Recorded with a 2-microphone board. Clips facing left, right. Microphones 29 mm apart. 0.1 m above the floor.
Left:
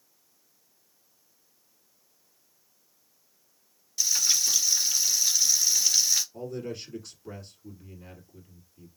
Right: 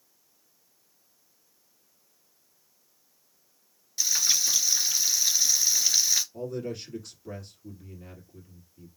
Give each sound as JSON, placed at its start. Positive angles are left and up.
{"t": 4.0, "sound": "frying", "side_deg": -20, "distance_m": 1.8}
{"t": 6.3, "sound": "a man speaking", "side_deg": 5, "distance_m": 2.5}